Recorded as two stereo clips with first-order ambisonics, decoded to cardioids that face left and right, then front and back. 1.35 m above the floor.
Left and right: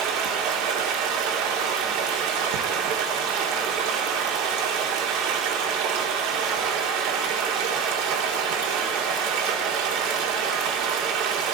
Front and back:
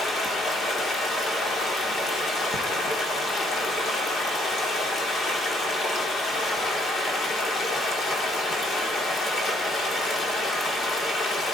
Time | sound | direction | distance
0.0 | running water | 65° right | 2.5 m